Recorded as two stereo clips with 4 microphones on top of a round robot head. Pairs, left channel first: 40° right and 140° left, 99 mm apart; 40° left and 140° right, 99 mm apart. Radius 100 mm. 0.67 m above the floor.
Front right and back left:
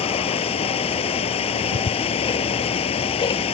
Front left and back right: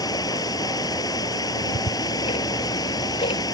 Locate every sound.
0.0 s running water: 15° right
1.6 s ticking: 5° left